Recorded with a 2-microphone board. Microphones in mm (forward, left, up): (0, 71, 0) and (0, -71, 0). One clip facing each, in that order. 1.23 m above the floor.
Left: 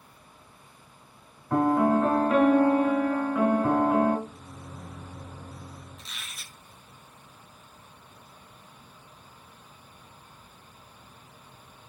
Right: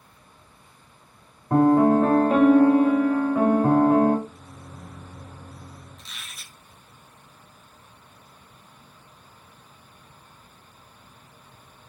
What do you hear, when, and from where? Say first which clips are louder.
1.5 s a piano: right 5 dB; 35° right (ahead or behind), 1.4 m
4.3 s a microwave: even; 5° left (ahead or behind), 0.6 m
6.0 s a squeak: even; 5° left (ahead or behind), 1.3 m